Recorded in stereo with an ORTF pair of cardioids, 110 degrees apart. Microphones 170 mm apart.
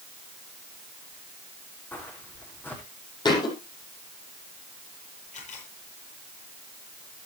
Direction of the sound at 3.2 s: 25° left.